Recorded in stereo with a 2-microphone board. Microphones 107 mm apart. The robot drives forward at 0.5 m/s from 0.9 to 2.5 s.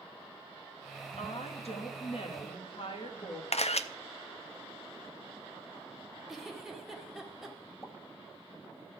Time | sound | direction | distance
1.2 | a woman speaking | 75° left (ahead or behind) | 1.6 m
3.5 | a camera shutter | 75° left (ahead or behind) | 0.6 m
6.3 | a giggle | centre (ahead or behind) | 1.6 m
7.8 | a pop | 20° left (ahead or behind) | 1.3 m